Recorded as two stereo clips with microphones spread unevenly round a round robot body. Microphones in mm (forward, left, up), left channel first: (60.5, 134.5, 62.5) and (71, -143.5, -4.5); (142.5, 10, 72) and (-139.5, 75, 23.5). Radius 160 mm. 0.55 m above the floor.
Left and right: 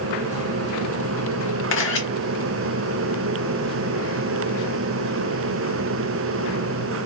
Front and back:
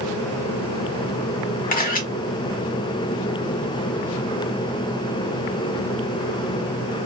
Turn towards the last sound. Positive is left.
turn(degrees=50)